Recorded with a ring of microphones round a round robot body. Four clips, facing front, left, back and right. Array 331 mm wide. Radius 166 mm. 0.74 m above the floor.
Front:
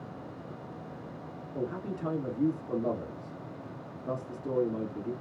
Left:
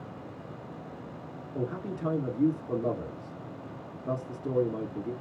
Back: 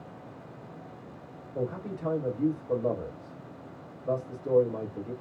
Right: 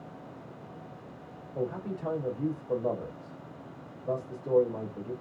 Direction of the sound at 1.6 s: 60° left.